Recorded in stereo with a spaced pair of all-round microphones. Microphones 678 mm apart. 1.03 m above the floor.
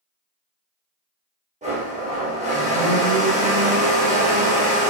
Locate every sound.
1.6 s a blender: 10° right (ahead or behind), 0.8 m